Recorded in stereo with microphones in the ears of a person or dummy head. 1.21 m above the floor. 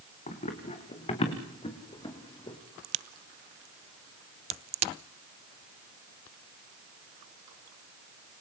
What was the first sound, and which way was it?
Running footsteps, 35° left (ahead or behind).